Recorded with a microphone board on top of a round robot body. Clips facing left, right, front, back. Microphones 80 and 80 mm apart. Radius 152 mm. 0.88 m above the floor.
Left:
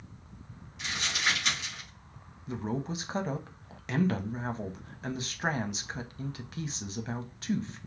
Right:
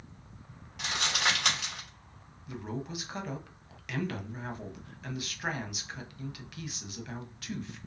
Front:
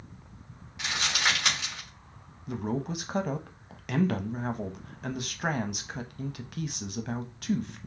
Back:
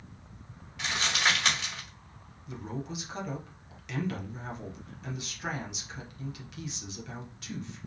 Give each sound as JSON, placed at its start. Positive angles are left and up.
{"t": 0.8, "sound": "crumpling", "azimuth_deg": -75, "distance_m": 3.5}
{"t": 2.5, "sound": "a man speaking", "azimuth_deg": 30, "distance_m": 1.0}